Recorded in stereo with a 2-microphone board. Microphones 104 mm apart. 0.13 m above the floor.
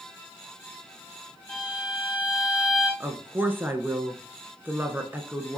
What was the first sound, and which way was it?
A violin, 15° left (ahead or behind).